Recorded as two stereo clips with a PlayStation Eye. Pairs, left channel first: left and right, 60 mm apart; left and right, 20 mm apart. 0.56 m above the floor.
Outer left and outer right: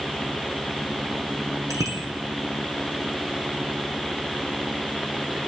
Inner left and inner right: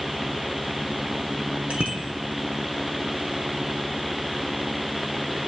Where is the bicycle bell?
65° right (ahead or behind), 5 m.